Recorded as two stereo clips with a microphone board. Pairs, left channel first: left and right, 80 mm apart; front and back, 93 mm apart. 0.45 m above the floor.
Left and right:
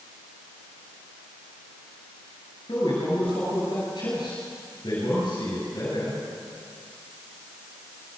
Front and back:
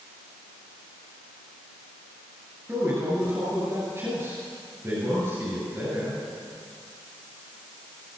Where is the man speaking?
115° left, 8.5 m.